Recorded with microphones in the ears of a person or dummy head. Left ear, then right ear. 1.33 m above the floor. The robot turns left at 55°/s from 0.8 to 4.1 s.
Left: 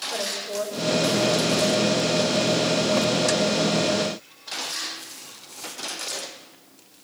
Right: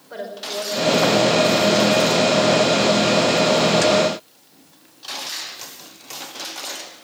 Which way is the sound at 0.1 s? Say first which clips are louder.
Right 4 dB; 170° right.